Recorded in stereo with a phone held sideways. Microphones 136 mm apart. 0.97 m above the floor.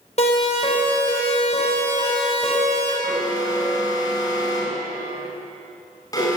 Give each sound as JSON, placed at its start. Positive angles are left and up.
{"t": 0.2, "sound": "a siren", "side_deg": 55, "distance_m": 6.0}
{"t": 3.0, "sound": "an alarm", "side_deg": 30, "distance_m": 7.0}